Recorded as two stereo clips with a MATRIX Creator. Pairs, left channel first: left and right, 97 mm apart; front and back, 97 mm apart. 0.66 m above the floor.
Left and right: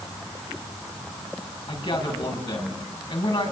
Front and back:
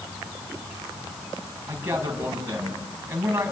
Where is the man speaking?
110° left, 6 m.